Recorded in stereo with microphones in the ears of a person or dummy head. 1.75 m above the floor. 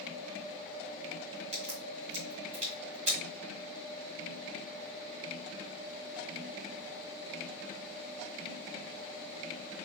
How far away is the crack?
About 1.7 m.